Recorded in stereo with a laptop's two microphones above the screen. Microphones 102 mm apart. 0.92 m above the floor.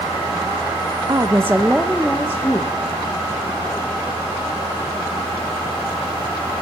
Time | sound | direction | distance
1.1 | a woman speaking | 35° right (ahead or behind) | 0.7 m